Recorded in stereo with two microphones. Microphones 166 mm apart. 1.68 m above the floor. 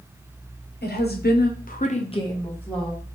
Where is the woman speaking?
75° left (ahead or behind), 1.0 m; by 3.0 s centre (ahead or behind), 1.1 m.